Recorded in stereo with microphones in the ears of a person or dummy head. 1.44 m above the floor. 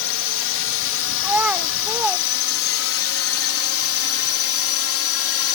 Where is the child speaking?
5° right (ahead or behind).